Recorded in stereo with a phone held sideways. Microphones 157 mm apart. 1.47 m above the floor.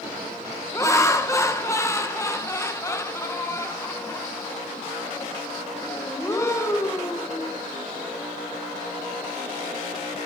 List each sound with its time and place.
0.7 s laughter: 20° left (ahead or behind), 1.4 m